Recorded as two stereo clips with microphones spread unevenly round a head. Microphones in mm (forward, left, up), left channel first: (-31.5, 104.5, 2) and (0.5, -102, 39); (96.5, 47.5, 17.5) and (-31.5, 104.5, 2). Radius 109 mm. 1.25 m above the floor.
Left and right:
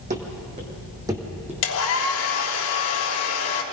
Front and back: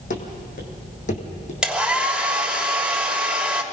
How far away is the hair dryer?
About 3 m.